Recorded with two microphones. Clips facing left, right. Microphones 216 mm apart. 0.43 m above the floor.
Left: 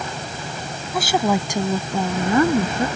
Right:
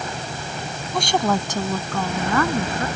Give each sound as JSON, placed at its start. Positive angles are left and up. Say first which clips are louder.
{"t": 0.9, "sound": "a woman speaking", "louder": "left 1 dB", "side_deg": 5}